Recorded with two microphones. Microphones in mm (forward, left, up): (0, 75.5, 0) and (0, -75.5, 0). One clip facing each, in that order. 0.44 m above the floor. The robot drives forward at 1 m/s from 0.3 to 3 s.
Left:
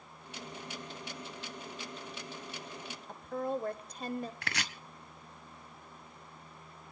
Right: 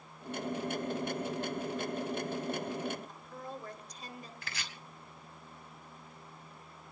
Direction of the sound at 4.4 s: 70° left (ahead or behind).